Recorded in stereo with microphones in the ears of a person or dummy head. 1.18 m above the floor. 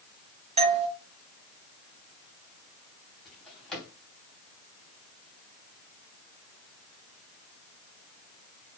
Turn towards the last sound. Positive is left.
turn(degrees=0)  # may be behind; listen again after turning